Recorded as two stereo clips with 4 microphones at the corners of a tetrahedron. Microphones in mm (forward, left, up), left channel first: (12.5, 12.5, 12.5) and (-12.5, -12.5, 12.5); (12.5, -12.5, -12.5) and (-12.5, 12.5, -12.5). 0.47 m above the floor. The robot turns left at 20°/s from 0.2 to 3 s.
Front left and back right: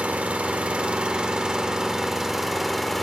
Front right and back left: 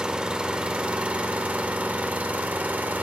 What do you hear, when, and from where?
0.0 s an engine running: 170° right, 0.7 m; by 3.0 s 135° left, 0.7 m